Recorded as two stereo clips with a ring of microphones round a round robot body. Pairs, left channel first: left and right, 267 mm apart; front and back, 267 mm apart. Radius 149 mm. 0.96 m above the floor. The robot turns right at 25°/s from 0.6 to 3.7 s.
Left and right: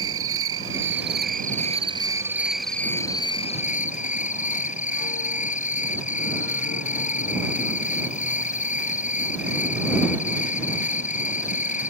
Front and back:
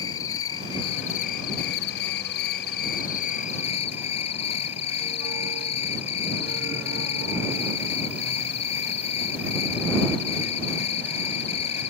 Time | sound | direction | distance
0.0 | an insect | 50° right | ?